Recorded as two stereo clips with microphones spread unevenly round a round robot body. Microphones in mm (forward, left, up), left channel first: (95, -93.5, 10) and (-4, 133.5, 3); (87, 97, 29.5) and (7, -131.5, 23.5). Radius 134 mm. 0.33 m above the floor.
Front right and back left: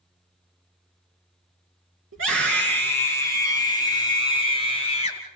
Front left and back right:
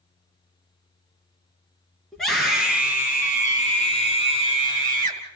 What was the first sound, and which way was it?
A scream, 160° left.